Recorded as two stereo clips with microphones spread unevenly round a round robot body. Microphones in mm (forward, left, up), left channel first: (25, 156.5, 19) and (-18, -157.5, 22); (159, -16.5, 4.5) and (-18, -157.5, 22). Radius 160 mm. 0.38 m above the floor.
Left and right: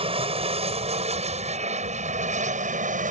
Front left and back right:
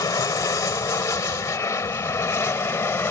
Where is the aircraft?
30° right; by 3.1 s 35° right.